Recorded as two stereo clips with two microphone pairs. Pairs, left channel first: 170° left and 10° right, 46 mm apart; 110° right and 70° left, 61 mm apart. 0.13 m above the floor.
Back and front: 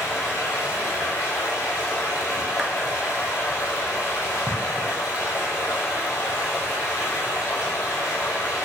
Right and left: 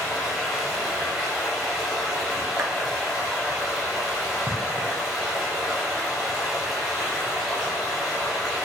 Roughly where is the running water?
Behind.